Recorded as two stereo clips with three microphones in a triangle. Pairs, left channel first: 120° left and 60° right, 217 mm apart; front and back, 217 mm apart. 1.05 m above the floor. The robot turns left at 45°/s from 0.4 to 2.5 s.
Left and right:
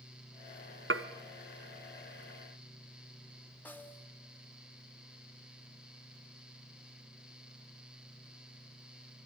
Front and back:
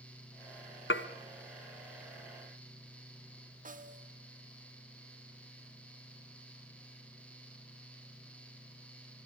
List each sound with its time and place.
0.9 s dishes clattering: 30° right, 0.6 m; by 1.1 s 40° right, 0.6 m
3.6 s a snare drum: 165° right, 0.8 m